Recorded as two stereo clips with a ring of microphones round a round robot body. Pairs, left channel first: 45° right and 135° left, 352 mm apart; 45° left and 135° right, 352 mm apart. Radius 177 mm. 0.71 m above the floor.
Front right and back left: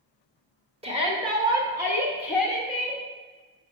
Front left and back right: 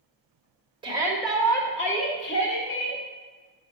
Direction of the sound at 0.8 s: 175° left.